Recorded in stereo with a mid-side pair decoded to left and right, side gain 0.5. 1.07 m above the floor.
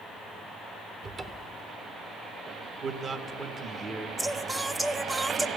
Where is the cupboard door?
35° right, 0.9 m.